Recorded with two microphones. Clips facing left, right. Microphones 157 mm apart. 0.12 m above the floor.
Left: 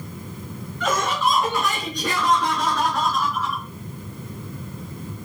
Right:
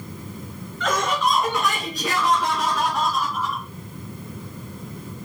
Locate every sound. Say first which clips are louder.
0.8 s laughter: even; 5° left (ahead or behind), 1.7 m; by 3.6 s 15° right (ahead or behind), 1.9 m